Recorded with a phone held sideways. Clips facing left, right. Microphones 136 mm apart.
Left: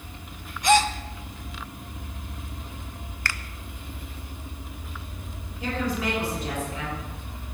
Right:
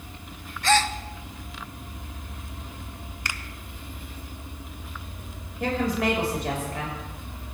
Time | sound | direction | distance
0.6 | a gasp | 15° left (ahead or behind) | 0.8 m
3.2 | a finger snap | 15° right (ahead or behind) | 0.8 m
5.6 | a woman speaking | 65° right (ahead or behind) | 6 m